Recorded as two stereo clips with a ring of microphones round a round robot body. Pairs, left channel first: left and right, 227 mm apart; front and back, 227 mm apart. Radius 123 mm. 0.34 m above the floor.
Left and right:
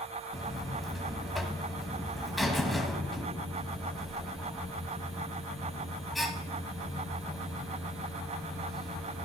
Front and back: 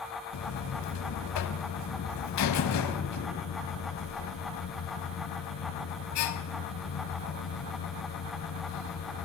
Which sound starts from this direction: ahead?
A buzzer, at 0.3 s.